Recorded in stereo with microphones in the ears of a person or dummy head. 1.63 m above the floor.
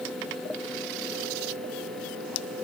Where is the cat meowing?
No cat meowing in this recording.